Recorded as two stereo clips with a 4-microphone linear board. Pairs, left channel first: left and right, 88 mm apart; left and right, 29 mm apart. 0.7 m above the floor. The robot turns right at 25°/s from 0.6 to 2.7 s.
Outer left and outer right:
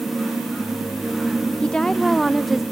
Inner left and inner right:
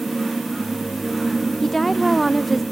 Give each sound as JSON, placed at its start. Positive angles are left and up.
{"t": 1.6, "sound": "a woman speaking", "side_deg": 10, "distance_m": 0.5}